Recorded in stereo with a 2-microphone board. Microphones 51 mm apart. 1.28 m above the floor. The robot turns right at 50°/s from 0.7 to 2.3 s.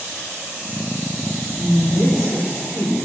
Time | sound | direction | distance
1.6 | a woman speaking | 40° left | 0.7 m